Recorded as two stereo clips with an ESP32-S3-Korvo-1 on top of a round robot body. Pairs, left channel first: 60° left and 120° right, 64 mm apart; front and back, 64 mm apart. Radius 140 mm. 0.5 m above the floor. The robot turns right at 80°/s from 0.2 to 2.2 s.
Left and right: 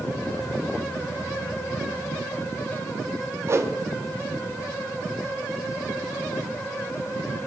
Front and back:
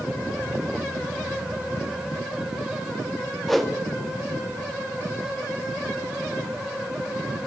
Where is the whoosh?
85° right, 1.3 m.